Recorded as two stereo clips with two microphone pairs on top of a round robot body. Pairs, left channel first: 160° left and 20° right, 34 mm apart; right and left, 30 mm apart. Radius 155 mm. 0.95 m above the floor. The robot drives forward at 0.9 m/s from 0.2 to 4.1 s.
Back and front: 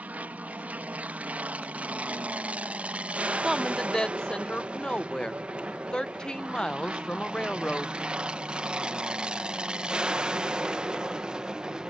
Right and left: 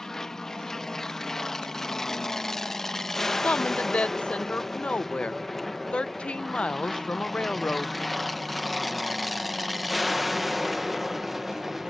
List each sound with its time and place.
0.0 s an aircraft: 15° right; by 11.9 s 20° left
3.4 s a woman speaking: 75° right; by 8.0 s 140° right